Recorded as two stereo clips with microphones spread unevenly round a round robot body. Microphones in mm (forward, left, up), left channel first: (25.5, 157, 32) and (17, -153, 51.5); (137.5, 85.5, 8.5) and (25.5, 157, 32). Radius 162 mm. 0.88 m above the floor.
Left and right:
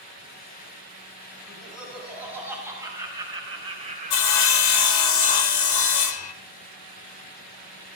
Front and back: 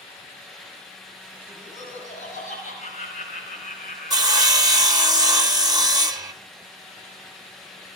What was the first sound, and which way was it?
Laughter, straight ahead.